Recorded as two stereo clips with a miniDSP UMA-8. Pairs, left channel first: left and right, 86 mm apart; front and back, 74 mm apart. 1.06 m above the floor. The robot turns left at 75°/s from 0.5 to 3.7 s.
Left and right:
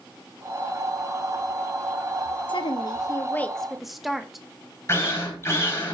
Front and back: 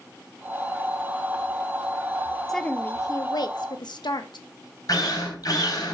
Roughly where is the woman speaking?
Left.